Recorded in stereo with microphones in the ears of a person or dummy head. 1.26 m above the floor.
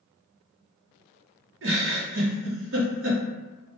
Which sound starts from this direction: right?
A giggle, at 1.6 s.